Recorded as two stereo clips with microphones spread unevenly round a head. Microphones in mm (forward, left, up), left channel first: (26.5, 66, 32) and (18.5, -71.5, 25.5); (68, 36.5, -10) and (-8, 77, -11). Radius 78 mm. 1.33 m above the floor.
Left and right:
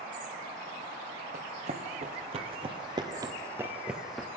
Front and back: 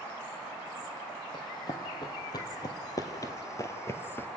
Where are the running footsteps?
65° right, 2.5 m; by 4.3 s 5° left, 1.5 m.